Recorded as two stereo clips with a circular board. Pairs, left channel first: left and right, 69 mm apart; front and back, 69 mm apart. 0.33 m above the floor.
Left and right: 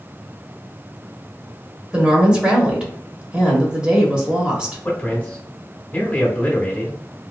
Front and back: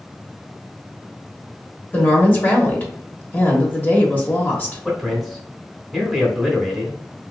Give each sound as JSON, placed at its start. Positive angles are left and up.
{"t": 1.9, "sound": "a woman speaking", "azimuth_deg": -30, "distance_m": 1.0}
{"t": 4.8, "sound": "a man speaking", "azimuth_deg": 90, "distance_m": 1.2}